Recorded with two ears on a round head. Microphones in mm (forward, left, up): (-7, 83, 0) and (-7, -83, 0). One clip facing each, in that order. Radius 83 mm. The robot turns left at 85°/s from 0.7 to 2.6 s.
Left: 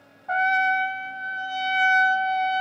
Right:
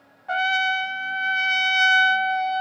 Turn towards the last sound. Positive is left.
turn(degrees=165)